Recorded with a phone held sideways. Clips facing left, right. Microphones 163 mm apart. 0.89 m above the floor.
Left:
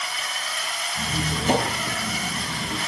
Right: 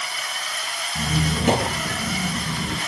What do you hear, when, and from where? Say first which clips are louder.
0.9 s a squeak: right 5 dB; 70° right (ahead or behind), 10 m